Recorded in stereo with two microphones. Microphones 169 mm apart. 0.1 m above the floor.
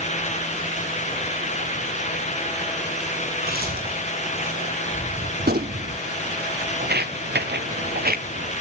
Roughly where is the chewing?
Right.